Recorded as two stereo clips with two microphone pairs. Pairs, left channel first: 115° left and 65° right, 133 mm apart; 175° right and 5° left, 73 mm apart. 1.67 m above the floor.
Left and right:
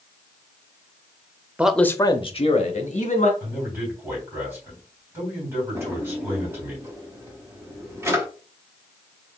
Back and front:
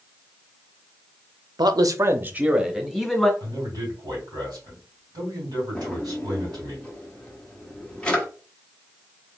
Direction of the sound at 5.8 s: 115° right.